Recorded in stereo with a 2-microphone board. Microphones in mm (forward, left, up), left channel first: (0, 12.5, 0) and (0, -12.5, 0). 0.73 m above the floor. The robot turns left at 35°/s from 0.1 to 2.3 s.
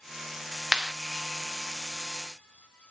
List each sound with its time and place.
0.7 s a clap: 40° right (ahead or behind), 0.7 m